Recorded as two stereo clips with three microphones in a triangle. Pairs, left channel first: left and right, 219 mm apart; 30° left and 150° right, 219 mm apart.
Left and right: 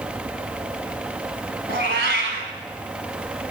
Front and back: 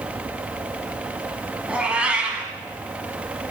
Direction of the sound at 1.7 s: 65° right.